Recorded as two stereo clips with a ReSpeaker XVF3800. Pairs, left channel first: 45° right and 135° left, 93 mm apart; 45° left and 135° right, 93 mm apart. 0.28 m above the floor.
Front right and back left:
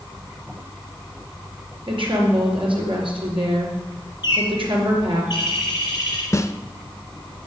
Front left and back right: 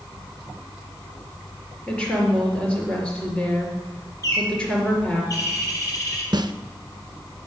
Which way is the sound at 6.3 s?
100° right.